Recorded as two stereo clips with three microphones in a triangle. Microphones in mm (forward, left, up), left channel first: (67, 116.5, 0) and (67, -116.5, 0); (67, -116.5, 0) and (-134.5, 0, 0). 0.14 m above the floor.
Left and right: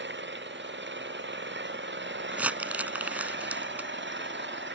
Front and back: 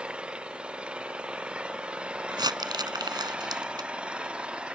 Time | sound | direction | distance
0.0 | an engine running | 125° right | ?
2.3 | crumpling | 165° right | ?